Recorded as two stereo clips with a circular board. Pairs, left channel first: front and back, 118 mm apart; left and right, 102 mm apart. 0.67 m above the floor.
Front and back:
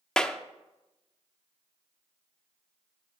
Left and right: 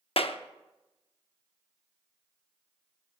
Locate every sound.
0.2 s a clap: 85° left, 0.7 m